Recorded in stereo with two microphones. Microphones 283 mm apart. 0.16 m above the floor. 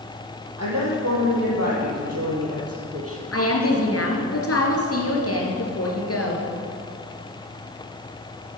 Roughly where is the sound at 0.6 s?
Right.